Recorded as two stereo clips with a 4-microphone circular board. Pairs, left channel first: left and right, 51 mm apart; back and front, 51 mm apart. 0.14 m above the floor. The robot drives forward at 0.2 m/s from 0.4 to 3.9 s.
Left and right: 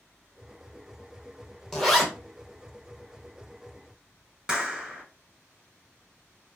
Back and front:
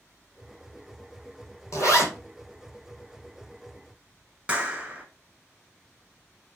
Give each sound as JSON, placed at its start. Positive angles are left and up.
{"t": 1.7, "sound": "a zipper", "azimuth_deg": 170, "distance_m": 1.0}
{"t": 4.5, "sound": "a clap", "azimuth_deg": -35, "distance_m": 1.0}